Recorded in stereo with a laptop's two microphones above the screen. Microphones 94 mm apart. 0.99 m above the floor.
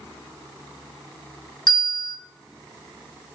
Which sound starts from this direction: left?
A bell, at 1.7 s.